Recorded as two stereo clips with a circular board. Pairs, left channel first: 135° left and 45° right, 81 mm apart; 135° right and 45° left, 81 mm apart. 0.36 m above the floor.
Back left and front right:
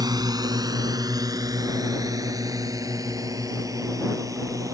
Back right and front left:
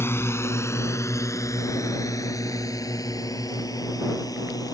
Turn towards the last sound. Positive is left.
turn(degrees=-95)